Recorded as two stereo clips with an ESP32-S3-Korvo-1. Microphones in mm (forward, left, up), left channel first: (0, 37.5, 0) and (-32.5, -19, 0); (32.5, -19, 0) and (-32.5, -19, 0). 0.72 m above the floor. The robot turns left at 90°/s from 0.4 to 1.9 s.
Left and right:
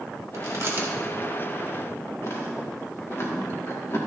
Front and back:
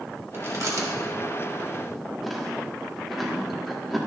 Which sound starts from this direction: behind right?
Chewing, at 0.3 s.